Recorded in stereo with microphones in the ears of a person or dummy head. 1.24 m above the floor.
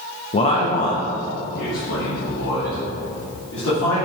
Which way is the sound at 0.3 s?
25° left (ahead or behind).